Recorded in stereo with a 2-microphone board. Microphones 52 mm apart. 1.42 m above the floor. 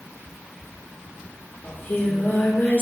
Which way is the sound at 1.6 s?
50° left (ahead or behind).